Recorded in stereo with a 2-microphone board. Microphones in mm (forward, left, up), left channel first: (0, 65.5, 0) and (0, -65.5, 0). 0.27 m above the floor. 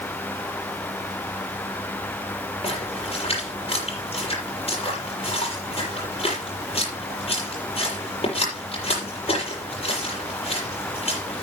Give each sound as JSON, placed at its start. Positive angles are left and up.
{"t": 2.6, "sound": "a splash", "side_deg": 45, "distance_m": 6.5}